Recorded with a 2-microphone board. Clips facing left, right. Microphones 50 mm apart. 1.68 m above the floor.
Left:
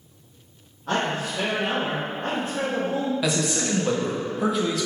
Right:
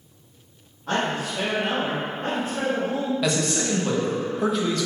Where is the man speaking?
5° left (ahead or behind), 0.7 m.